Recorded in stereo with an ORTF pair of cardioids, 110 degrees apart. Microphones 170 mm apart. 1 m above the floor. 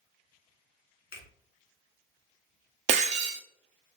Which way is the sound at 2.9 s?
45° right.